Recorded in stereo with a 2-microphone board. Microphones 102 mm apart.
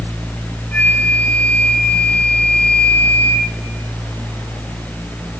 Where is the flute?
20° left (ahead or behind), 3 m.